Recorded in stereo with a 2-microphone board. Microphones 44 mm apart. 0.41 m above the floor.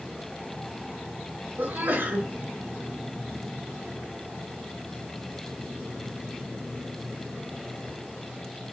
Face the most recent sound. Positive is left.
turn(degrees=-55)  # may be behind; listen again after turning